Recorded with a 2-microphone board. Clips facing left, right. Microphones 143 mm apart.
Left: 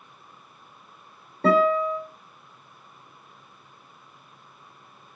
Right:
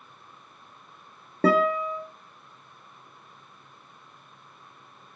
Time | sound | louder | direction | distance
1.4 | a guitar | left 2 dB | 75° right (ahead or behind) | 1.1 m